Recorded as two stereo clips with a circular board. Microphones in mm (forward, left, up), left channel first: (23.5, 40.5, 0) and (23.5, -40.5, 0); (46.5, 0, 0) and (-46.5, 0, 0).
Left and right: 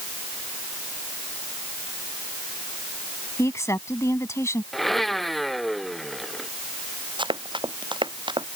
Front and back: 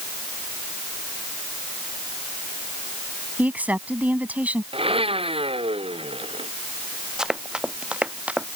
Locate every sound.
3.4 s a woman speaking: 115° left
4.7 s a blender: 175° left
7.2 s running footsteps: 95° right; by 8.5 s 105° right